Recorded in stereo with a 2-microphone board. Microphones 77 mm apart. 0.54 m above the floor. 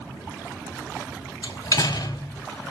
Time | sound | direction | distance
1.4 | a door slam | 55° left (ahead or behind) | 1.2 m